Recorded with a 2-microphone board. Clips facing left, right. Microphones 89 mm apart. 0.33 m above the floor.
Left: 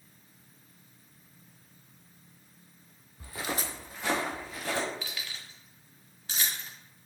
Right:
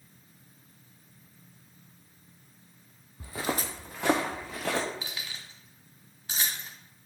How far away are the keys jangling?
About 1.4 m.